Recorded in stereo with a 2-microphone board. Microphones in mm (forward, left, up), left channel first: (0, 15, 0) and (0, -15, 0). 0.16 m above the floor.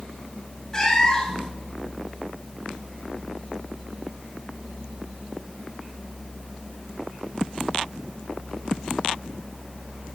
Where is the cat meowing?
20° left (ahead or behind), 1.4 m.